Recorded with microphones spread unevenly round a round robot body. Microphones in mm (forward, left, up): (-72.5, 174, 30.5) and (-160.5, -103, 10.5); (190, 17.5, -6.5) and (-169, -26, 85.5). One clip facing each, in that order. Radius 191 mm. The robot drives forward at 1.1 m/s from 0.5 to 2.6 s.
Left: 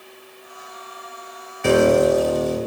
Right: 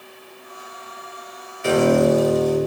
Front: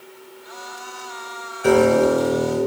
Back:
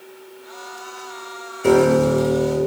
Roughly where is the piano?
Left.